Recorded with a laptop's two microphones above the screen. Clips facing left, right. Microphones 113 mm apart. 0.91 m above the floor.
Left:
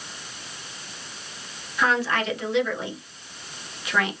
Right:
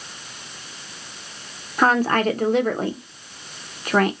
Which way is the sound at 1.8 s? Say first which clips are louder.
Right 5 dB; 45° right (ahead or behind).